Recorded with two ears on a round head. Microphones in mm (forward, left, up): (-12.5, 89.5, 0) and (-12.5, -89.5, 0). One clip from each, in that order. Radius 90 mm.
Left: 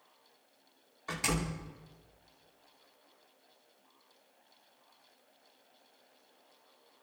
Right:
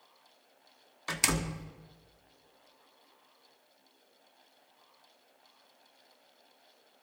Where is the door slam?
85° right, 1.3 m.